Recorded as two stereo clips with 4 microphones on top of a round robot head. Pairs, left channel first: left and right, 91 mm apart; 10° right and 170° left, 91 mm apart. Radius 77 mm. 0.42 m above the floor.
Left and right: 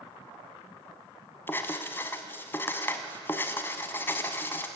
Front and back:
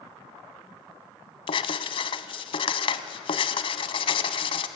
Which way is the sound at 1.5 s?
15° left.